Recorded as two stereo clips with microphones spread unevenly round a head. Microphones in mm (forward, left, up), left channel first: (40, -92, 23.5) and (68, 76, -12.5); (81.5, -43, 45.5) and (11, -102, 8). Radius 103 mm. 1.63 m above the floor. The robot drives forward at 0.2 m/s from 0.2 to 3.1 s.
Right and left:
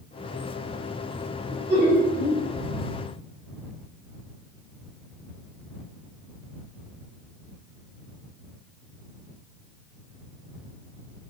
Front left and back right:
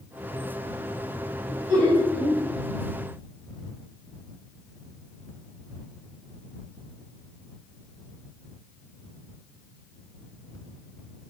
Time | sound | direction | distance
1.5 | laughter | 165° left | 1.4 m